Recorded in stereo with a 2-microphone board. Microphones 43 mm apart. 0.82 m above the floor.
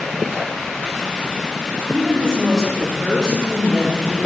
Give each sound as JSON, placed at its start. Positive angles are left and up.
{"t": 1.9, "sound": "a woman speaking", "side_deg": -15, "distance_m": 5.5}